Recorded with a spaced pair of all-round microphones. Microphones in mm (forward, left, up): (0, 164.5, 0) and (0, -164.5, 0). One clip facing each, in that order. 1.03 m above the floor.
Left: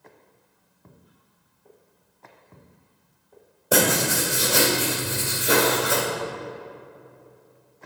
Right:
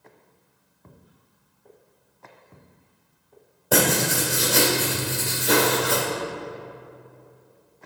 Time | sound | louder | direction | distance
3.7 | writing | even | 5° left (ahead or behind) | 1.6 m